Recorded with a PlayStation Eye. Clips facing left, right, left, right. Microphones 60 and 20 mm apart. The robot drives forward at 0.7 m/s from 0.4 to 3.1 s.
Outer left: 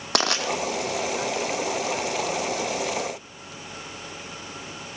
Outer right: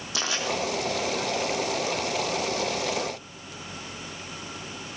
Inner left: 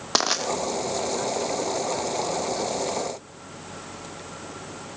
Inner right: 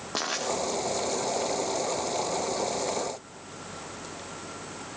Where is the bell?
I don't hear a bell.